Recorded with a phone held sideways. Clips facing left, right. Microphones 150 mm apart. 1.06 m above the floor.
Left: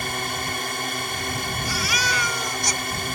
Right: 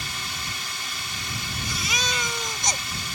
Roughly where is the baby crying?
Right.